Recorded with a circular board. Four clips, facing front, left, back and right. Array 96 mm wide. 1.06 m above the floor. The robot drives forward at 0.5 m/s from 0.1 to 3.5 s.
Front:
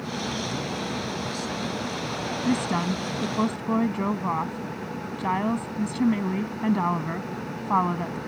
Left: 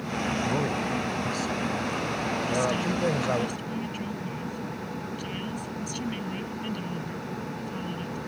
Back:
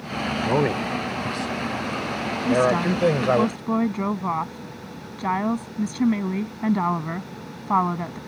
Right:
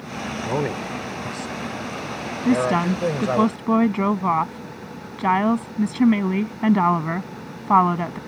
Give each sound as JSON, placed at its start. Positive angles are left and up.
{"t": 0.4, "sound": "a man speaking", "azimuth_deg": -155}
{"t": 2.5, "sound": "a woman speaking", "azimuth_deg": -95}